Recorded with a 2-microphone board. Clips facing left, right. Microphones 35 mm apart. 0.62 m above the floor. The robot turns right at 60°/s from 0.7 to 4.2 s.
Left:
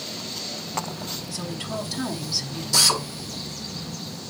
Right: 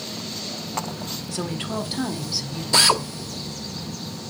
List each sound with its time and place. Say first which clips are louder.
1.3 s a woman speaking: right 4 dB; 70° right, 1.8 m; by 2.6 s 10° left, 1.8 m
2.7 s a drill: right 3 dB; 40° right (ahead or behind), 0.9 m; by 3.0 s 20° right (ahead or behind), 0.9 m